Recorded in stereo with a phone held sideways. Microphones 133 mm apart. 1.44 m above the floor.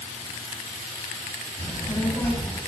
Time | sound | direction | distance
1.6 | a child speaking | 15° left (ahead or behind) | 6.5 m